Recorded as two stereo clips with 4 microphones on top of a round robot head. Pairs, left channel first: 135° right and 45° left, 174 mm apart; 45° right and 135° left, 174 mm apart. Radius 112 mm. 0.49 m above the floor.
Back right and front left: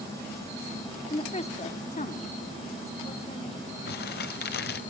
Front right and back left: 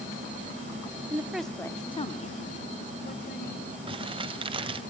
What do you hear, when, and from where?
1.1 s a woman speaking: 170° right, 1.4 m; by 3.8 s 75° right, 4 m
3.9 s crumpling: 165° right, 1.0 m